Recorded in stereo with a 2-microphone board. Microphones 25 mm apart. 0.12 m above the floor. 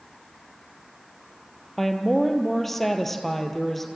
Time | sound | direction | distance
1.8 | a woman speaking | 10° left (ahead or behind) | 2 m